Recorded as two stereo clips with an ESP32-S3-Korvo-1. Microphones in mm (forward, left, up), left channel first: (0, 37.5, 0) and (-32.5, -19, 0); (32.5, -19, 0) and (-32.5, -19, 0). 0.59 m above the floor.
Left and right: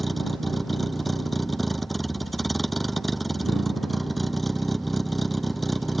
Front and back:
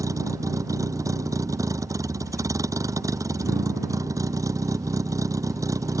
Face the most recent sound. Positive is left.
turn(degrees=150)